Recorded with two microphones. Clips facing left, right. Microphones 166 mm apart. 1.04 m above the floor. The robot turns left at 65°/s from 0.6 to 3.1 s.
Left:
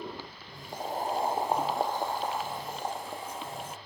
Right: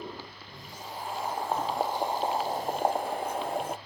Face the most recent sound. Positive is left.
turn(degrees=-85)